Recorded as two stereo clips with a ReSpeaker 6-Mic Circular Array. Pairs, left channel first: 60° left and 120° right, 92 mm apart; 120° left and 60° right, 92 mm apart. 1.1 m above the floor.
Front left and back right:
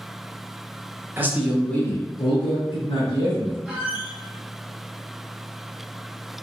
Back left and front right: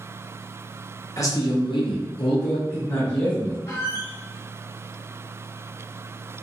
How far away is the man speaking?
About 0.7 m.